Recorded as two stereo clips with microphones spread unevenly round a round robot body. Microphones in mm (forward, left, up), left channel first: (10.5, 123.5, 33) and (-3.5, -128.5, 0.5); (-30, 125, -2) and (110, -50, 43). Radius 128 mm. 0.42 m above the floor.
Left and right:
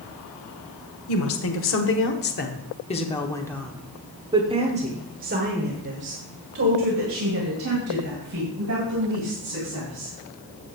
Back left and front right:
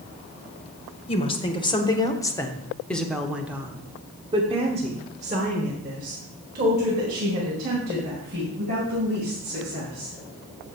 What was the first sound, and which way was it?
A woman speaking, 80° left.